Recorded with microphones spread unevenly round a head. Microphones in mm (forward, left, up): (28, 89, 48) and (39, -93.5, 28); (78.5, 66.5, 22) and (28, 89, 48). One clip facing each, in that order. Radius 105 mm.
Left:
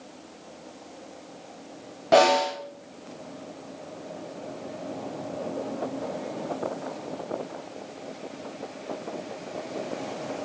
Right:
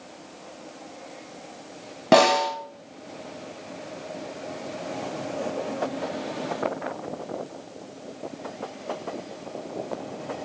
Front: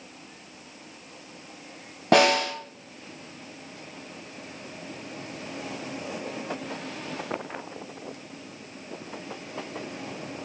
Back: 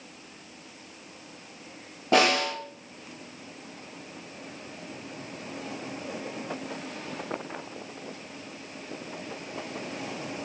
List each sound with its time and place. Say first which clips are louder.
2.1 s a snare drum: right 1 dB, front 3 dB; 95° right, 0.9 m